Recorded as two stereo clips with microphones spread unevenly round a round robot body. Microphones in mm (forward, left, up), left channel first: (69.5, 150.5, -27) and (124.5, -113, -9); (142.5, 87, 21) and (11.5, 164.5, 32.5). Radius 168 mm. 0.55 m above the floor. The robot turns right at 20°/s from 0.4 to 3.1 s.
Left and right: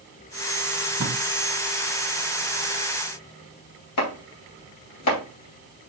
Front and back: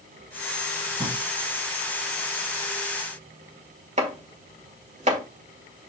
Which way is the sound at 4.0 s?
110° left.